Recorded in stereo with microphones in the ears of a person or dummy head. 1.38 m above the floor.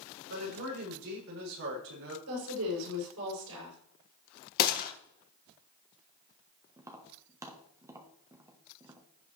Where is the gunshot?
55° left (ahead or behind), 1.3 m.